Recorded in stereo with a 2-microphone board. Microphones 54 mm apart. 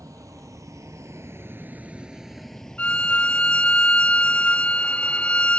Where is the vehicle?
85° right; by 5.6 s 45° left (ahead or behind).